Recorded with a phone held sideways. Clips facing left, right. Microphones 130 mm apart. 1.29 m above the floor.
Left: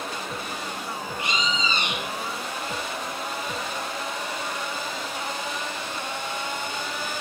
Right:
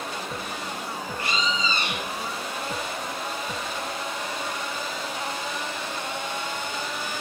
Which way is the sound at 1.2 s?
20° left (ahead or behind).